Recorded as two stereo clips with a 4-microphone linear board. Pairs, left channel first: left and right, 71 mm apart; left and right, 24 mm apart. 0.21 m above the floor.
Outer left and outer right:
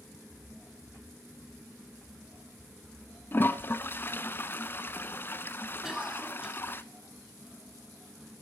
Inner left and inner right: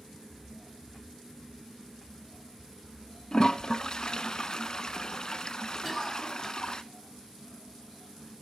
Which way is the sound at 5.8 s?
5° right (ahead or behind).